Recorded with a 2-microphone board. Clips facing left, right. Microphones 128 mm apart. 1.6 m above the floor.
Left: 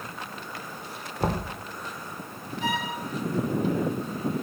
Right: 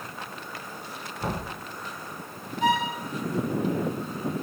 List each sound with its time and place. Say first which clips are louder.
1.2 s knocking: left 4 dB; 40° left (ahead or behind), 1.2 m
2.6 s a violin: right 6 dB; 60° right (ahead or behind), 4.5 m